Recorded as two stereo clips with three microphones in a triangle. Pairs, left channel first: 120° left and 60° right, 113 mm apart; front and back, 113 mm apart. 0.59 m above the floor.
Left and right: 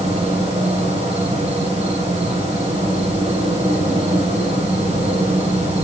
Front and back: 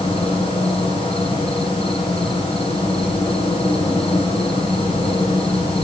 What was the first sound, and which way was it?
An insect, 40° right.